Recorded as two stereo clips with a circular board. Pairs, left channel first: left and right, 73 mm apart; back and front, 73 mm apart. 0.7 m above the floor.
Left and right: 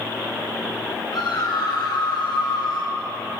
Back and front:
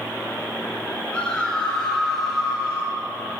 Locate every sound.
1.1 s a scream: 105° left, 3.5 m; by 3.0 s 70° left, 3.5 m